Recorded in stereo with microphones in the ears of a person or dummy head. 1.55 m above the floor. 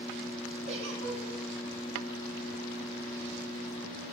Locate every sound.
0.7 s a giggle: 70° right (ahead or behind), 3.5 m